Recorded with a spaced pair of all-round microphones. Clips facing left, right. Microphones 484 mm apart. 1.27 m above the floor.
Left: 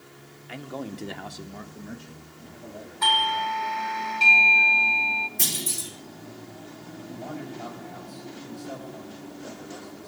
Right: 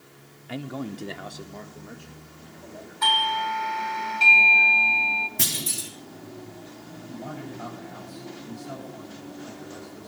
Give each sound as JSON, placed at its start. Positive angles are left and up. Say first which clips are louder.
{"t": 0.5, "sound": "a man speaking", "louder": "right 3 dB", "side_deg": -55, "distance_m": 0.8}
{"t": 3.0, "sound": "a doorbell", "louder": "even", "side_deg": 0, "distance_m": 1.0}
{"t": 5.4, "sound": "a clunk", "louder": "right 1 dB", "side_deg": -80, "distance_m": 4.0}
{"t": 7.1, "sound": "a man speaking", "louder": "even", "side_deg": -25, "distance_m": 8.0}